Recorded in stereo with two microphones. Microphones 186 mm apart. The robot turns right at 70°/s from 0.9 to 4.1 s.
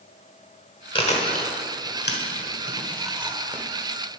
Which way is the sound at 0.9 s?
25° left (ahead or behind).